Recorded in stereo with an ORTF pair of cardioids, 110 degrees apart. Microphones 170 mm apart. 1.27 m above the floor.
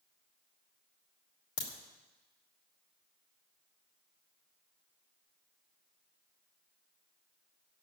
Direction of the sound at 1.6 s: 45° left.